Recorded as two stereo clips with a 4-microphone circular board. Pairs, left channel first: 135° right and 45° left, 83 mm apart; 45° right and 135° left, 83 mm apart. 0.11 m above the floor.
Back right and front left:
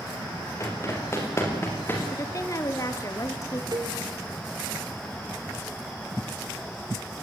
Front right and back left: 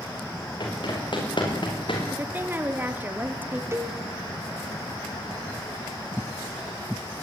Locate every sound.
0.6 s running footsteps: 75° right, 8.5 m; by 2.0 s 70° right, 8 m
2.1 s a woman speaking: 165° right, 1.7 m
3.7 s a cowbell: 75° left, 3.5 m